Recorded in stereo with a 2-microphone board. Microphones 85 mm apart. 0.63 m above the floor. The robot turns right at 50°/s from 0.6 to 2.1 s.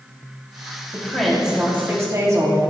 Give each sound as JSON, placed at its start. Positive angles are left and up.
{"t": 0.9, "sound": "a woman speaking", "azimuth_deg": 165, "distance_m": 3.5}